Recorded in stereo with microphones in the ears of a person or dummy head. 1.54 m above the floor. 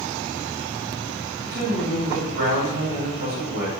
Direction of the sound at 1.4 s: 65° right (ahead or behind).